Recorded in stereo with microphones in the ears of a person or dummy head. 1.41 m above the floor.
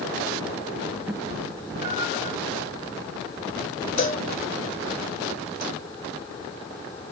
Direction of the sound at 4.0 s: 40° left (ahead or behind).